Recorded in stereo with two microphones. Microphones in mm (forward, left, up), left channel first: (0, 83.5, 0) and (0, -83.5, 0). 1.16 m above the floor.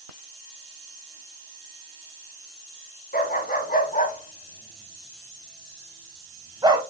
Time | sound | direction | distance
3.1 | a dog barking | 65° left (ahead or behind) | 2 m